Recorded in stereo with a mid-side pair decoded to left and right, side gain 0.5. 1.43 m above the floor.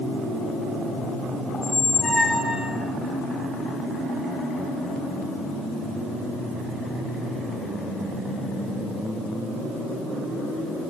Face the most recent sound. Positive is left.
turn(degrees=30)